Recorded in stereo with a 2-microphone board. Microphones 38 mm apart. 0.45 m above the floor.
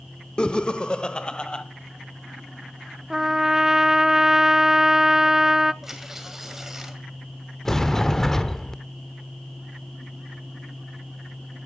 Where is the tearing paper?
10° right (ahead or behind), 2.5 m.